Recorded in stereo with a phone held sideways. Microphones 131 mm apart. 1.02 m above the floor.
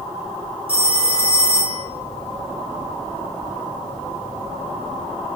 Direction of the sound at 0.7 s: 45° right (ahead or behind).